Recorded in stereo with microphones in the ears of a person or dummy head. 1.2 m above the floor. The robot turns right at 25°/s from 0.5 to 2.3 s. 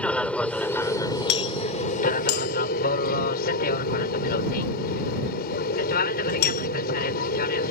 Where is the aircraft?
5° left; by 7.7 s 50° left.